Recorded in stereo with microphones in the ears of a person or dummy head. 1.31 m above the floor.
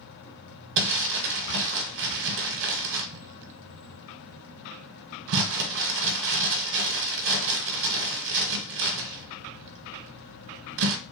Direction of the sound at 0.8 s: 60° right (ahead or behind).